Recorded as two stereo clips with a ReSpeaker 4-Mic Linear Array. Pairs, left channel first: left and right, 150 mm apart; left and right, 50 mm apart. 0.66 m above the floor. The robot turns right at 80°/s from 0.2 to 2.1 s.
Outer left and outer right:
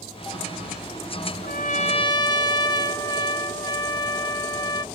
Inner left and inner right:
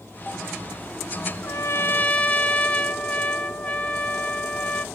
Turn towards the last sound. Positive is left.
turn(degrees=150)